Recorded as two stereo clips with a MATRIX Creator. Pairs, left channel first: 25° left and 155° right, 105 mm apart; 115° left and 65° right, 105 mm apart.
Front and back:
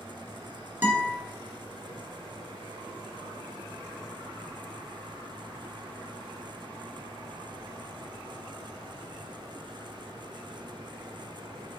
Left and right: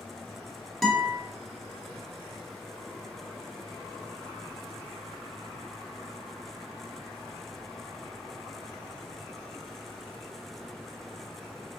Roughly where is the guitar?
Behind.